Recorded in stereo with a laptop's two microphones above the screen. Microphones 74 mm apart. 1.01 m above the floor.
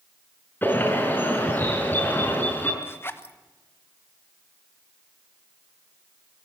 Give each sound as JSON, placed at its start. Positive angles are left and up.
{"t": 0.6, "sound": "a bird", "side_deg": 25, "distance_m": 5.5}
{"t": 2.8, "sound": "a zipper", "side_deg": 30, "distance_m": 1.1}